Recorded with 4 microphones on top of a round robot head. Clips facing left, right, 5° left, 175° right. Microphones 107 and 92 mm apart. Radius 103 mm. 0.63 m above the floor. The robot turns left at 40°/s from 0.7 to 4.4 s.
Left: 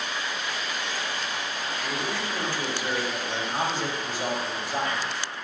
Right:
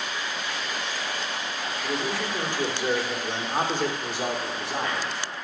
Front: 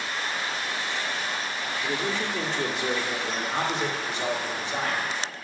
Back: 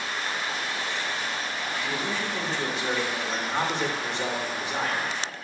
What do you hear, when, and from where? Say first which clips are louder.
1.8 s a man speaking: right 3 dB, front 3 dB; 10° left, 1.7 m; by 5.1 s 95° right, 1.7 m